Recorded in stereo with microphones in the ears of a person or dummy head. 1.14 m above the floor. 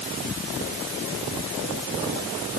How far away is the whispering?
I don't hear whispering.